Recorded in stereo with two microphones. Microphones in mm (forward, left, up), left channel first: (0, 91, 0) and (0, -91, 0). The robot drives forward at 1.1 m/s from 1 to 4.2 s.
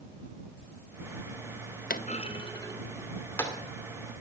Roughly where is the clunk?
Left.